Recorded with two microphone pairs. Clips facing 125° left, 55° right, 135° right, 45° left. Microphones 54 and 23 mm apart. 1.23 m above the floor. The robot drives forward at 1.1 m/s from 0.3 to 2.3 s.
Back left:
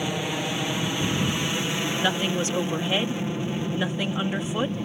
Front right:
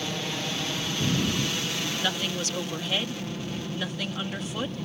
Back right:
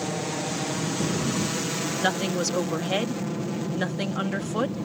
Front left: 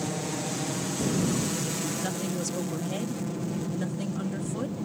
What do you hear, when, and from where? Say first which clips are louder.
0.0 s an aircraft: back left 4 dB, back right 2 dB; 175° left; by 4.9 s straight behind
2.0 s a woman speaking: back left 6 dB, back right 6 dB; 165° right